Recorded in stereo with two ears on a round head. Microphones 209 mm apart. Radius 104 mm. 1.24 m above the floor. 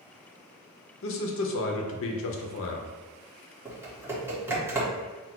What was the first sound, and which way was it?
A man speaking, 60° left (ahead or behind).